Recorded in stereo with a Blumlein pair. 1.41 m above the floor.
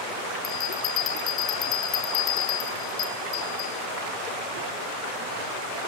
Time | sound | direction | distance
0.4 | a bell | 35° left | 0.8 m